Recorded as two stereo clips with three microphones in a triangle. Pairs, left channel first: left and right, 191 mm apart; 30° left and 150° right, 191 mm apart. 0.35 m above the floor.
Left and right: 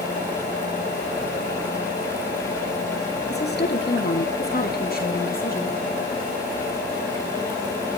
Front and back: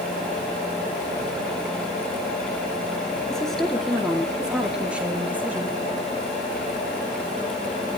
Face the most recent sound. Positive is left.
turn(degrees=130)